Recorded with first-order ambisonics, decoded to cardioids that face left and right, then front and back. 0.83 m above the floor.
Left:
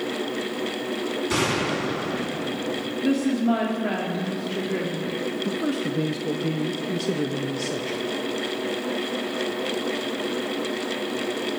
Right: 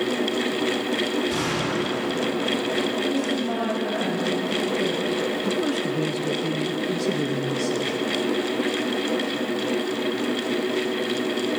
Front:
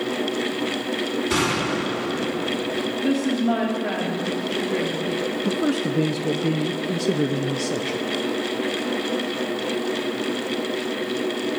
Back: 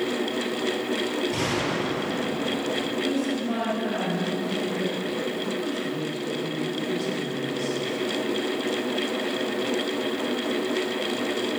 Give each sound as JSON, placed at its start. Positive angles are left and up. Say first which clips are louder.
{"t": 1.3, "sound": "a gunshot", "louder": "left 1 dB, front 4 dB", "azimuth_deg": 30, "distance_m": 6.0}
{"t": 3.0, "sound": "a woman speaking", "louder": "left 1 dB, front 4 dB", "azimuth_deg": 45, "distance_m": 2.0}
{"t": 5.5, "sound": "a man speaking", "louder": "right 2 dB, front 5 dB", "azimuth_deg": 5, "distance_m": 0.6}